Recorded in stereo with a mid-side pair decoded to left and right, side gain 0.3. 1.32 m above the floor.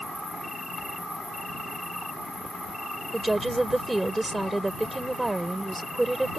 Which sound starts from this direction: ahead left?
An insect, at 0.0 s.